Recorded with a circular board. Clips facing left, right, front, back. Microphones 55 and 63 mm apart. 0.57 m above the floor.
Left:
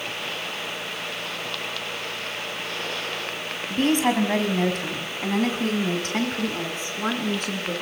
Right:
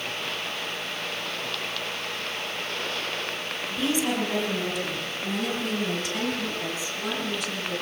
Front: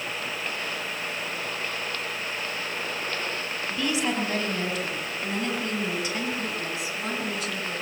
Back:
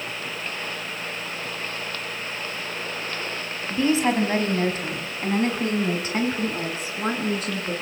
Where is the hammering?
No hammering in this recording.